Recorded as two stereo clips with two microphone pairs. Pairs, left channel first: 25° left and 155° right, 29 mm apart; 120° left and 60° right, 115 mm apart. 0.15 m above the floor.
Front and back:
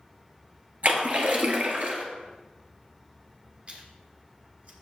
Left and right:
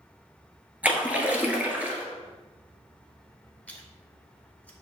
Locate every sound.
0.8 s a splash: 135° right, 1.4 m
3.7 s chewing: 165° right, 1.4 m